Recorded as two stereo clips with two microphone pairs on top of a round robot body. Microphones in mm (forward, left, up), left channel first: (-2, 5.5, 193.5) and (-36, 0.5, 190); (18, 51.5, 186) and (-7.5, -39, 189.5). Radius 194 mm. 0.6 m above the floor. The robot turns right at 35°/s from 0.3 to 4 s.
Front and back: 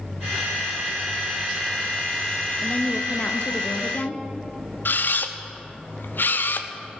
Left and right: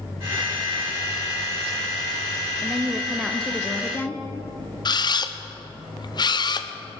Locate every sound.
2.6 s a woman speaking: 30° right, 1.1 m; by 4.2 s 20° left, 1.1 m
4.8 s a camera shutter: 35° left, 0.8 m